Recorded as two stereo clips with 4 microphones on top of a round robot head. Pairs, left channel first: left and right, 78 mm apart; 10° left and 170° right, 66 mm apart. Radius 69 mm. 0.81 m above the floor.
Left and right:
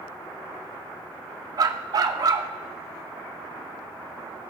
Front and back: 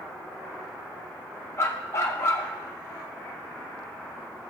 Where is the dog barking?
50° right, 0.6 m.